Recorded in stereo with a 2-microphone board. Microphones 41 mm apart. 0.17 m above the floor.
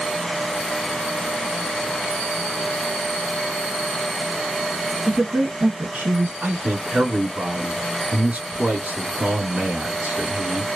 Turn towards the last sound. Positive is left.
turn(degrees=-30)  # may be behind; listen again after turning